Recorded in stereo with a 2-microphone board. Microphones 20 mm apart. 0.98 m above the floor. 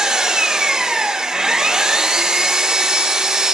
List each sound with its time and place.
0.0 s an engine running: 45° right (ahead or behind), 1.1 m